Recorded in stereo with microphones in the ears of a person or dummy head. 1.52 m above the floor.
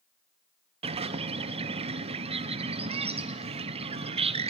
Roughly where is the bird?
Right.